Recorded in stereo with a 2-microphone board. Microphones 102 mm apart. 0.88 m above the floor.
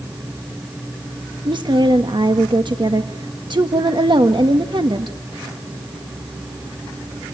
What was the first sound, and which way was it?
A woman speaking, 50° right (ahead or behind).